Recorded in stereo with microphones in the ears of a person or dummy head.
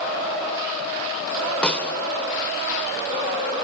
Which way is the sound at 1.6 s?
10° left (ahead or behind).